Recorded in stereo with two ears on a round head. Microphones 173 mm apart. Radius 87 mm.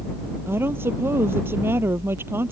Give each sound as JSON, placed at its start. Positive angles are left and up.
{"t": 0.5, "sound": "a woman speaking", "side_deg": -10}